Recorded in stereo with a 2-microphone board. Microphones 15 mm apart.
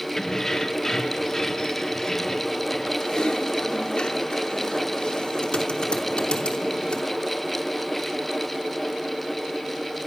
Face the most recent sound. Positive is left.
turn(degrees=80)